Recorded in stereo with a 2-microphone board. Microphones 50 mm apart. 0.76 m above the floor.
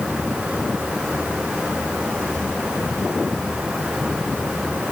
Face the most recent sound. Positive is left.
No sound to turn to.